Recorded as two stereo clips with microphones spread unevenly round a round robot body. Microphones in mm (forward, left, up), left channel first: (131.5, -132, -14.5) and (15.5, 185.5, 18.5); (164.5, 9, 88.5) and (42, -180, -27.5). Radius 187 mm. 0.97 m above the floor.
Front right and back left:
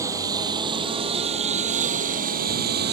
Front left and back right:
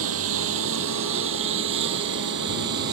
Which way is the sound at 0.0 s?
170° right.